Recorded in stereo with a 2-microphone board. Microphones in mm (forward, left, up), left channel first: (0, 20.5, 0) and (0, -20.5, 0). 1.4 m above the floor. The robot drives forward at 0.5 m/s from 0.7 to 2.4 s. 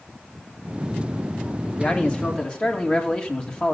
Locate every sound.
1.8 s a man speaking: 30° left (ahead or behind), 2.5 m; by 3.7 s 25° left (ahead or behind), 2.5 m